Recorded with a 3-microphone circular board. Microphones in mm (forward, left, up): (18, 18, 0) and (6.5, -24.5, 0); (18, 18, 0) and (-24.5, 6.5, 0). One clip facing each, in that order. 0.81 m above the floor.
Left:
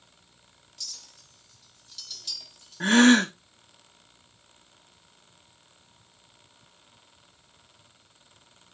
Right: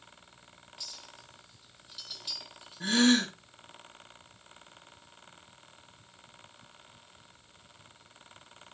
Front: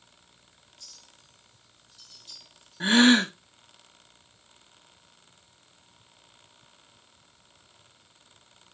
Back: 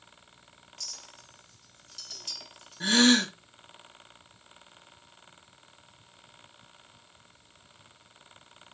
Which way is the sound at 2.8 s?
75° left.